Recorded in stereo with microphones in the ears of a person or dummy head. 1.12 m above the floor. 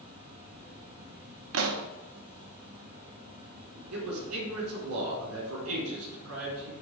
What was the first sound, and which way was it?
An insect, 25° right (ahead or behind).